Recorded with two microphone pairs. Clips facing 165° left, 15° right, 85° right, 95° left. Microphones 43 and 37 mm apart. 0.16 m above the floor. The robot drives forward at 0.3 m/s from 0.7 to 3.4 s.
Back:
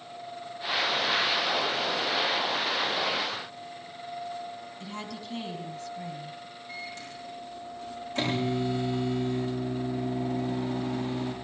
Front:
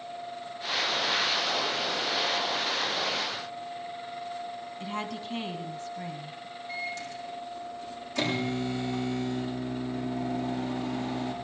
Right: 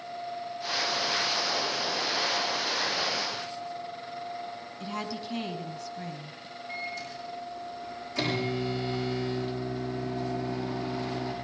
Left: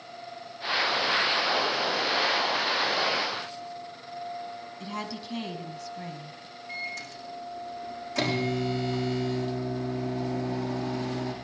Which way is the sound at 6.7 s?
115° left.